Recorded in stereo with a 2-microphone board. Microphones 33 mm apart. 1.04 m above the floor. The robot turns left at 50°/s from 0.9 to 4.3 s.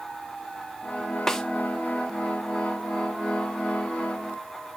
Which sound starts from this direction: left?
A snare drum, at 1.3 s.